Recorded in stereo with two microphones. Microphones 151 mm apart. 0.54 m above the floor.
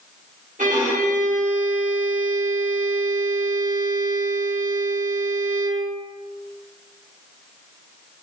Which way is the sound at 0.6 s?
60° right (ahead or behind).